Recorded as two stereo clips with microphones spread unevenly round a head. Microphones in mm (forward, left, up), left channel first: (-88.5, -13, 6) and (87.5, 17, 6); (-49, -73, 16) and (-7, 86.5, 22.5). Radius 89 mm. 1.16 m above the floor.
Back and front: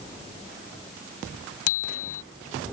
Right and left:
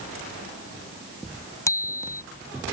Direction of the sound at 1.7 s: Straight behind.